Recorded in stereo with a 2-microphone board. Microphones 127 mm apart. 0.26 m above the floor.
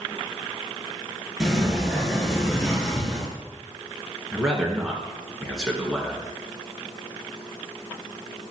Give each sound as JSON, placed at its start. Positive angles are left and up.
{"t": 1.4, "sound": "a sliding door", "side_deg": -5, "distance_m": 3.0}
{"t": 4.3, "sound": "a man speaking", "side_deg": -5, "distance_m": 3.0}